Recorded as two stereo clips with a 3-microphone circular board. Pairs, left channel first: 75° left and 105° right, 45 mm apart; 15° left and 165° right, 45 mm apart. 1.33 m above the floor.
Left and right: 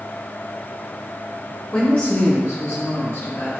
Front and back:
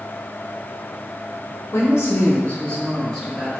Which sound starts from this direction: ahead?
A woman speaking, at 1.7 s.